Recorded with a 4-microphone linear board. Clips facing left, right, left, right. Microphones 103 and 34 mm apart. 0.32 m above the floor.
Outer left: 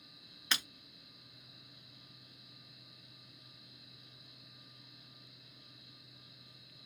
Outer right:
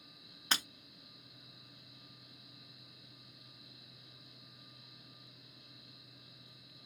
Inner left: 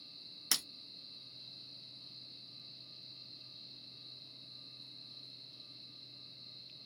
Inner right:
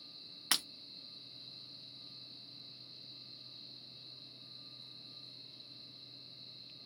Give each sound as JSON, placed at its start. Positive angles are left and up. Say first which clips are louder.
{"t": 0.5, "sound": "breaking glass", "louder": "outer right 1 dB, inner right 3 dB", "side_deg": -40, "distance_m": 1.0}